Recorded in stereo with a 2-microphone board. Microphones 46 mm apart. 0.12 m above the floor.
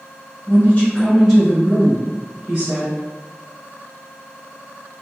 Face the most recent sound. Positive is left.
turn(degrees=-45)  # may be behind; listen again after turning